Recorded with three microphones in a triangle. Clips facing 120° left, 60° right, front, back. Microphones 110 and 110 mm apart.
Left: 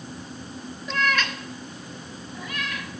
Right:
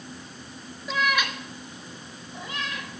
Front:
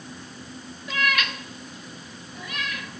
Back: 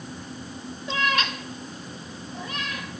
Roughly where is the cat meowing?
Behind right.